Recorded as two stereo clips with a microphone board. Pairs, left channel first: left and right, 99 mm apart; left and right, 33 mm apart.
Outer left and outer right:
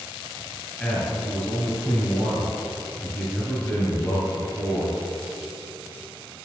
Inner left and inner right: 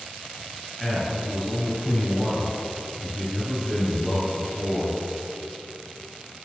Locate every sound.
0.8 s a man speaking: 15° left (ahead or behind), 2.5 m